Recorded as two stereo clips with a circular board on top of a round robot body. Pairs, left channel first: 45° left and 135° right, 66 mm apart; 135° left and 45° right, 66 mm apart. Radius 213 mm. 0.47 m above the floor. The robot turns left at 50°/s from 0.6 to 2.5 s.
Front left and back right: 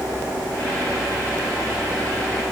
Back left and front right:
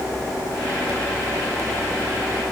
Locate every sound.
Only background noise.